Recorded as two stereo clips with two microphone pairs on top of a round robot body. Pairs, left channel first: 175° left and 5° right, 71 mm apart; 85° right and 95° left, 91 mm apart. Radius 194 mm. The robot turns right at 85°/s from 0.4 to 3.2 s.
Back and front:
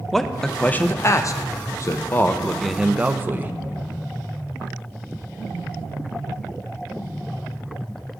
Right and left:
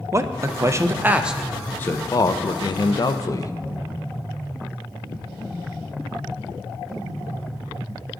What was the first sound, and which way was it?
A man speaking, 80° left.